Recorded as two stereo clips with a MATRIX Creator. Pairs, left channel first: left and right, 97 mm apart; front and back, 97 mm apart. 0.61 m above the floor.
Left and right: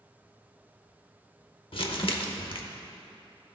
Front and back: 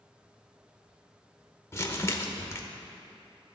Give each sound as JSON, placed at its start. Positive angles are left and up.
{"t": 1.7, "sound": "crumpling", "azimuth_deg": 65, "distance_m": 0.8}